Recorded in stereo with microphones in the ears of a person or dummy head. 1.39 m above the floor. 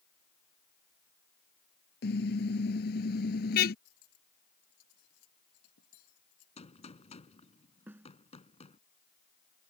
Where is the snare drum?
15° right (ahead or behind).